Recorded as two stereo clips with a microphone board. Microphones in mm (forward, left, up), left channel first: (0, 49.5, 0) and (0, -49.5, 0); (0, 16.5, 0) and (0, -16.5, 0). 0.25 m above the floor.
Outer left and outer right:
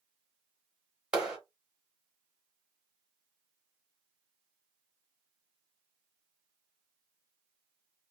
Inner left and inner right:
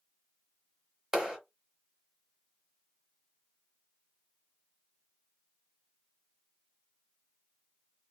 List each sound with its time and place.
1.1 s a clap: 10° right (ahead or behind), 1.9 m